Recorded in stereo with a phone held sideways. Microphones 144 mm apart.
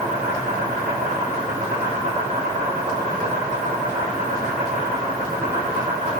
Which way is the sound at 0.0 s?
70° right (ahead or behind).